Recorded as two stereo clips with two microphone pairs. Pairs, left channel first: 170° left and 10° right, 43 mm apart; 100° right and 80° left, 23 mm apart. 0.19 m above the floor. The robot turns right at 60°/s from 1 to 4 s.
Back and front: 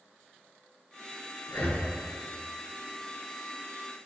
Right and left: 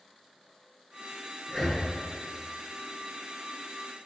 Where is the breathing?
165° left, 1.3 m; by 1.9 s 175° right, 1.3 m.